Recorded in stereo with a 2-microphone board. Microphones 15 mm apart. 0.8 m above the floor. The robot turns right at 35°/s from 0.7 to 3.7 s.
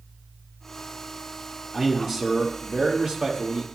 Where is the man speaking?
165° right, 1.7 m; by 3.7 s 100° right, 1.7 m.